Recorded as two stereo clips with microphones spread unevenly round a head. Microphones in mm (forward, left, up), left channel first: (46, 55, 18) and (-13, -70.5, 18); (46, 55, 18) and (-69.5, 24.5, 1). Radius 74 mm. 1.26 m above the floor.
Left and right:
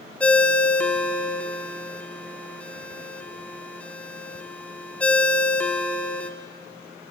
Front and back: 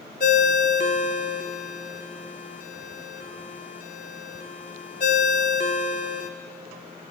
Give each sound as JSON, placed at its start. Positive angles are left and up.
{"t": 0.2, "sound": "a ringtone", "azimuth_deg": -15, "distance_m": 1.6}